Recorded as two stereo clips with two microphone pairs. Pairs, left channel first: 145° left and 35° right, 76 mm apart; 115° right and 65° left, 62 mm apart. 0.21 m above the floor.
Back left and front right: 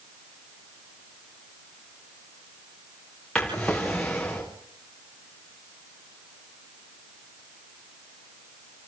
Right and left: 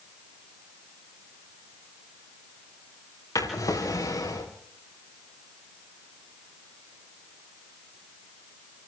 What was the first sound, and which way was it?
A drawer, 135° right.